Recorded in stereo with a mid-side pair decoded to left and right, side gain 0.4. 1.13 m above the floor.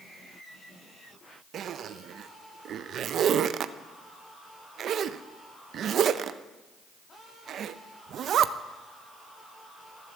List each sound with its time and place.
1.5 s a zipper: 65° right, 0.5 m